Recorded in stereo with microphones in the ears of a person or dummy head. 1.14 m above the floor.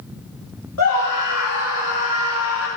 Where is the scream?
80° left, 3 m; by 2.7 s 75° left (ahead or behind), 2.5 m.